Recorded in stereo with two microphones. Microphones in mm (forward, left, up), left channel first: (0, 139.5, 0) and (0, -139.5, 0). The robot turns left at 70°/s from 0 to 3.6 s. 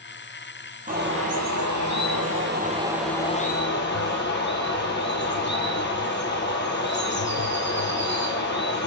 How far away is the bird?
About 0.9 m.